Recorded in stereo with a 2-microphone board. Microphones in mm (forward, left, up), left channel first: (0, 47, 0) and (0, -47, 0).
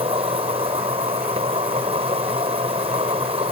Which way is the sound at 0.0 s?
80° right.